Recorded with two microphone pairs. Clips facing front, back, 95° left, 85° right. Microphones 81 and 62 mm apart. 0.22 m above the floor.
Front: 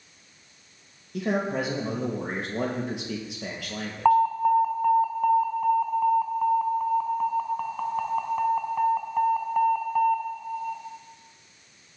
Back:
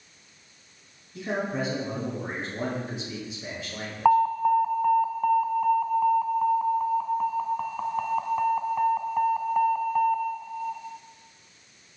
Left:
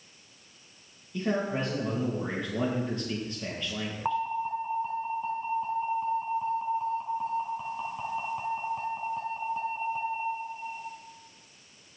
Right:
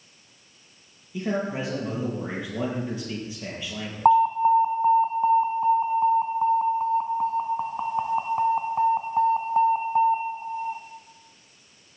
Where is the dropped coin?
I don't hear a dropped coin.